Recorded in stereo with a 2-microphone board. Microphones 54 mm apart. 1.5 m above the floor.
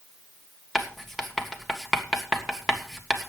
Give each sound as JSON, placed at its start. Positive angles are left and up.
{"t": 0.8, "sound": "writing", "side_deg": 10, "distance_m": 1.7}